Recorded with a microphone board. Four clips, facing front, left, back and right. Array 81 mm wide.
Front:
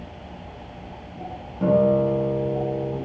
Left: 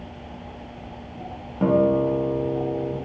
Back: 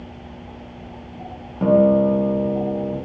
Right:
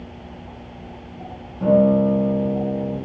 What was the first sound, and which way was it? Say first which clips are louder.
A guitar: right 3 dB, back 4 dB; 125° left.